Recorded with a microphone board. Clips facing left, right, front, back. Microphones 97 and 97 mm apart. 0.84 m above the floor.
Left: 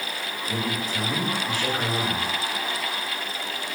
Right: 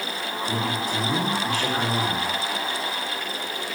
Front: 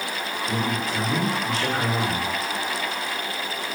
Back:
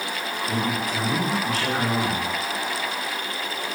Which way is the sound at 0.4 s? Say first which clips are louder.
Right 2 dB, even; 95° right.